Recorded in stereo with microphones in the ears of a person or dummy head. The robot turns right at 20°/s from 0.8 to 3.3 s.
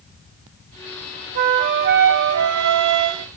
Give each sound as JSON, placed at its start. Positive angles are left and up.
{"t": 1.4, "sound": "a flute", "azimuth_deg": -135, "distance_m": 0.6}